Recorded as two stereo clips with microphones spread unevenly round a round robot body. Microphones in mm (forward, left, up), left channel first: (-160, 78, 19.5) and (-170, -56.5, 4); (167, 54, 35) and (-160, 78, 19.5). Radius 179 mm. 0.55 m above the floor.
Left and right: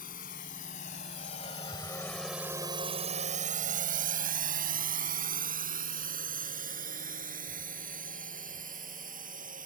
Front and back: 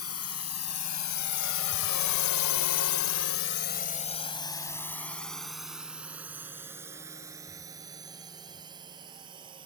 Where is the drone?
40° left; by 9.7 s 105° right.